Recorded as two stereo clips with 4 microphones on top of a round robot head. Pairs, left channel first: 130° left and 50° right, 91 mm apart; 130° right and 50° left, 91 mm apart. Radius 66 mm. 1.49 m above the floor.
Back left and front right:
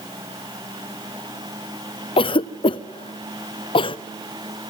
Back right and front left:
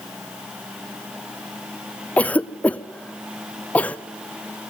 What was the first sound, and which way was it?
A cough, 155° left.